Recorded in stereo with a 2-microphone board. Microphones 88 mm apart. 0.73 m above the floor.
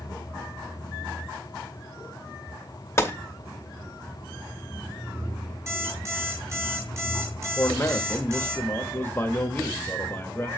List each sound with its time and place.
3.0 s a gunshot: 30° left (ahead or behind), 1.0 m
5.7 s an alarm clock: 30° right (ahead or behind), 3 m
7.6 s a man speaking: 25° left (ahead or behind), 1.1 m